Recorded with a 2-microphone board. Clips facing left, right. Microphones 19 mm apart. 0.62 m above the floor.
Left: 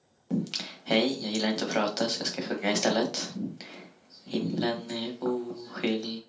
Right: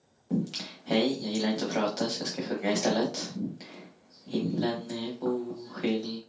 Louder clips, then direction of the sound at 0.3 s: Even; 35° left (ahead or behind).